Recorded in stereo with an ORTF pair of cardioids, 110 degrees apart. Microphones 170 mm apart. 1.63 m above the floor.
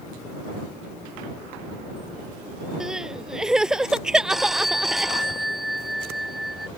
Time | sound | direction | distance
2.8 | crying | 5° right | ?
4.3 | a phone ringing | straight ahead | ?